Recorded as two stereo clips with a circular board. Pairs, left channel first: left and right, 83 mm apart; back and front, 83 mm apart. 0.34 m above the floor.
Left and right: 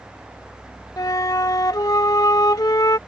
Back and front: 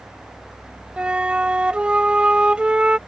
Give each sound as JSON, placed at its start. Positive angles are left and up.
{"t": 1.0, "sound": "a flute", "azimuth_deg": 75}